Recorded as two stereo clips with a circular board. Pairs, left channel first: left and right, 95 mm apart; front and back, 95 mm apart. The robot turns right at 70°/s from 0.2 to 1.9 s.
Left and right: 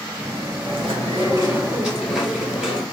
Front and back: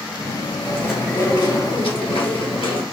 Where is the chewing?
95° right, 1.7 m; by 2.8 s 5° right, 1.7 m.